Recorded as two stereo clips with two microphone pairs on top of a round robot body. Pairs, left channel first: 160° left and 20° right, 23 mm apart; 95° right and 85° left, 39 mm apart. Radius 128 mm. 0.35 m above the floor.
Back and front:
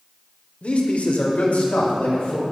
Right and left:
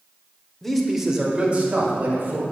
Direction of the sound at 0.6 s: 170° right.